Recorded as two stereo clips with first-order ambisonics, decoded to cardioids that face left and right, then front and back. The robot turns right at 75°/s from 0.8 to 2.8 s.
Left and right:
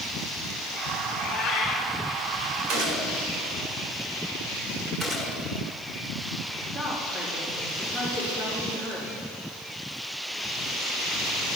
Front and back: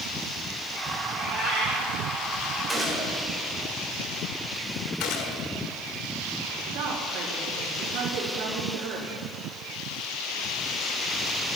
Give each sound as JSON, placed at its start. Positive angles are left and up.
{"t": 1.1, "sound": "a cat meowing", "azimuth_deg": 95, "distance_m": 4.5}
{"t": 2.7, "sound": "a gunshot", "azimuth_deg": -90, "distance_m": 4.0}
{"t": 5.0, "sound": "a gunshot", "azimuth_deg": -15, "distance_m": 2.5}
{"t": 6.7, "sound": "a woman speaking", "azimuth_deg": -165, "distance_m": 3.0}